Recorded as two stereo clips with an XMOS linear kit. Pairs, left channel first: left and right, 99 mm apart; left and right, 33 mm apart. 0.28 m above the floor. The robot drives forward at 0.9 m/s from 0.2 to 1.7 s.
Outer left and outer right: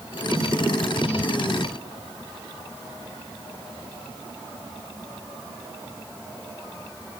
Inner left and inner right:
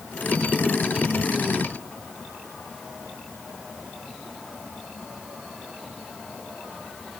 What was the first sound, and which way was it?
Only background noise.